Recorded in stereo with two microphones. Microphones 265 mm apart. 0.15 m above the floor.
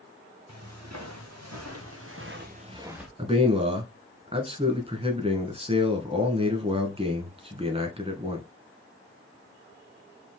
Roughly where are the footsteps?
Right.